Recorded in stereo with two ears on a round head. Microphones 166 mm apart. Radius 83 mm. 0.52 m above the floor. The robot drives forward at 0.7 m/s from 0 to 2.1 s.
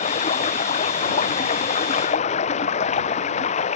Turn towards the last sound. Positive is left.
turn(degrees=40)  # may be behind; listen again after turning